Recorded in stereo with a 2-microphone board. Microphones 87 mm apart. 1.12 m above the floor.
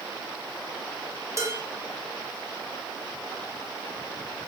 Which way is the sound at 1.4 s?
35° right (ahead or behind).